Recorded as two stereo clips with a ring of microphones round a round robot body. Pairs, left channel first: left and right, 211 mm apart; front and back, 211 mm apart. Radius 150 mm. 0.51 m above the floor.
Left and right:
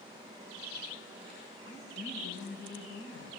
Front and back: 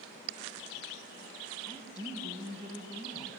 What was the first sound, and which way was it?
A woman speaking, 70° left.